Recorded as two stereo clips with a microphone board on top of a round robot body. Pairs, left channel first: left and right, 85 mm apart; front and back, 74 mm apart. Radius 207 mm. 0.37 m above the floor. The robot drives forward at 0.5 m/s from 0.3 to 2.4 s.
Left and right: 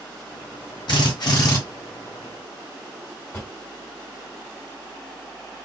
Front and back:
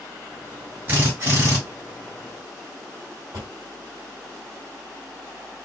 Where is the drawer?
155° left, 1.8 m.